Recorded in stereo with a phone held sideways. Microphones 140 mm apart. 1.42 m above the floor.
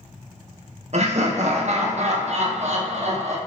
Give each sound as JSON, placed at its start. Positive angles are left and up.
{"t": 0.9, "sound": "laughter", "side_deg": -55, "distance_m": 0.6}